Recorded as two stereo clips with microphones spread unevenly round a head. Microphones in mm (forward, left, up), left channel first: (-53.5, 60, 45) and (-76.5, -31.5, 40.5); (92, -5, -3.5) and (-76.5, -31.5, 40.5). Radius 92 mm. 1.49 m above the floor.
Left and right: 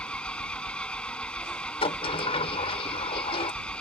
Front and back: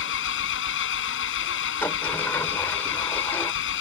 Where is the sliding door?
95° left.